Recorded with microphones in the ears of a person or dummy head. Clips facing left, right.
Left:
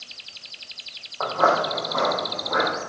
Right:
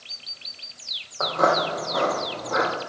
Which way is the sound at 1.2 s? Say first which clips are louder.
Even; 25° right (ahead or behind).